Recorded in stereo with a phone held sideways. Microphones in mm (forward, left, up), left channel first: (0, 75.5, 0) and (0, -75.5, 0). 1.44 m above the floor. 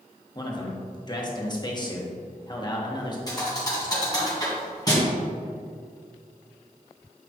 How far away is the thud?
About 2.5 m.